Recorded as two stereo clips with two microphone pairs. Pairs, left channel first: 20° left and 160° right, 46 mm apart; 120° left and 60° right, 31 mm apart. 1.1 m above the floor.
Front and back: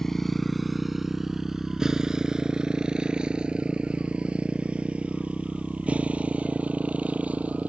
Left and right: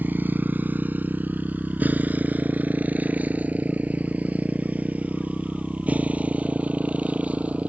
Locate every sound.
0.0 s a motorcycle: 60° right; by 7.7 s 100° right